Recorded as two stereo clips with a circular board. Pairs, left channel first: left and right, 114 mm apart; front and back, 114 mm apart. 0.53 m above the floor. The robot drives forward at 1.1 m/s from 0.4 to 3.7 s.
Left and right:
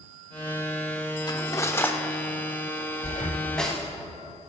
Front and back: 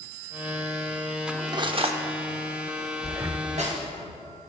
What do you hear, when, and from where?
1.3 s cutlery clinking: 105° left, 0.5 m; by 3.9 s 175° left, 3 m
3.0 s breathing: 95° left, 0.7 m; by 3.5 s 130° left, 0.9 m